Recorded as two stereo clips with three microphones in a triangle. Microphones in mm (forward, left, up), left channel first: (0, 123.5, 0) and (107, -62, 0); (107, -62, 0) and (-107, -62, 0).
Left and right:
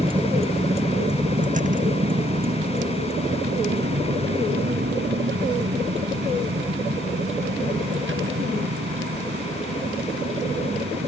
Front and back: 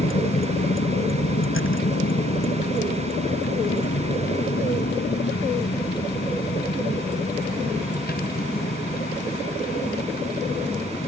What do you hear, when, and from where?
0.0 s a vehicle: 5° left; by 11.1 s 50° right